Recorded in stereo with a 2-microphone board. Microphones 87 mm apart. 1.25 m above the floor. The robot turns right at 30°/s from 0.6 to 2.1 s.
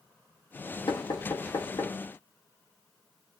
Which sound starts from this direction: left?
Knocking, at 0.9 s.